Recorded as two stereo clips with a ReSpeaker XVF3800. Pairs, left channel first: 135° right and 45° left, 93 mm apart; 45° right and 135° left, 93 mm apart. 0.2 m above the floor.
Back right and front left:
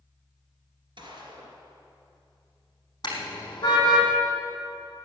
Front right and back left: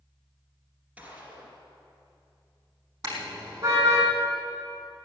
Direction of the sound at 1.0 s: 65° left.